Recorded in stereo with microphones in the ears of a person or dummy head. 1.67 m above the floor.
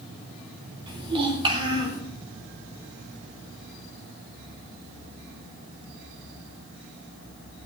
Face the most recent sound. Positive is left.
turn(degrees=-30)  # may be behind; listen again after turning